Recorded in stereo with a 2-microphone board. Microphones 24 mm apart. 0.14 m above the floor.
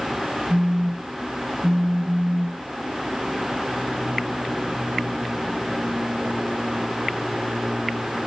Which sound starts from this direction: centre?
A phone buzzing, at 0.5 s.